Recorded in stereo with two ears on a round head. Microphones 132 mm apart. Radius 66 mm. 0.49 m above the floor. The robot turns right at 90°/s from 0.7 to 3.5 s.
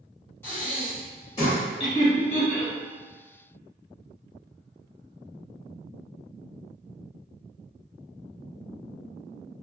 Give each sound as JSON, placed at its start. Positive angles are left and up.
{"t": 0.4, "sound": "breathing", "side_deg": 15, "distance_m": 1.3}
{"t": 1.8, "sound": "laughter", "side_deg": 35, "distance_m": 1.2}